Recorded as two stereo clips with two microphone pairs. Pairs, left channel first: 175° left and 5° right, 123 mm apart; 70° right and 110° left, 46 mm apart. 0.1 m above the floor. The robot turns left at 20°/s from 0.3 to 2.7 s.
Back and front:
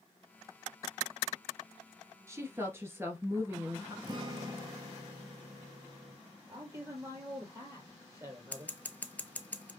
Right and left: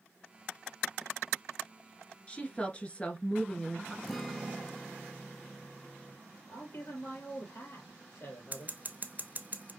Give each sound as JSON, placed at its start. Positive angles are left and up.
{"t": 2.3, "sound": "a woman speaking", "azimuth_deg": -35, "distance_m": 1.2}
{"t": 4.0, "sound": "a guitar", "azimuth_deg": 20, "distance_m": 0.6}
{"t": 6.5, "sound": "a man speaking", "azimuth_deg": -65, "distance_m": 2.5}
{"t": 8.5, "sound": "scissors", "azimuth_deg": 105, "distance_m": 0.6}